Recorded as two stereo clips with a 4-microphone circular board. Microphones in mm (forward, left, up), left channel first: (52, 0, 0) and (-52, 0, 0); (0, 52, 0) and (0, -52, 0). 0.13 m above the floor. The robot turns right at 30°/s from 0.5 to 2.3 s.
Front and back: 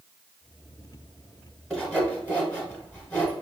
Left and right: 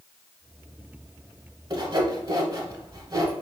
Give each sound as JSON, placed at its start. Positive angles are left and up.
{"t": 1.7, "sound": "sawing", "azimuth_deg": -80, "distance_m": 1.0}